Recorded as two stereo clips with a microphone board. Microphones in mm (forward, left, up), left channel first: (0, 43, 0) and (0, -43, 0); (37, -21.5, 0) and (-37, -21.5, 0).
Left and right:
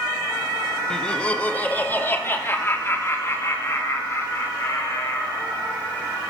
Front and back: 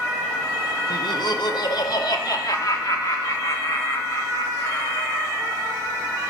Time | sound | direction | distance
0.9 | laughter | 10° left | 1.1 m